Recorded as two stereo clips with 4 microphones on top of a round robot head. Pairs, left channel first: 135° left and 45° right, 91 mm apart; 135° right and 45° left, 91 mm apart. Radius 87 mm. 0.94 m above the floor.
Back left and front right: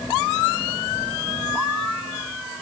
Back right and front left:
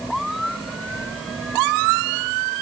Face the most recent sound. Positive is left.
No sound to turn to.